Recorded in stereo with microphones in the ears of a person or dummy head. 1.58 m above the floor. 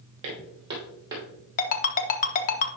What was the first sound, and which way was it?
Footsteps, 30° right (ahead or behind).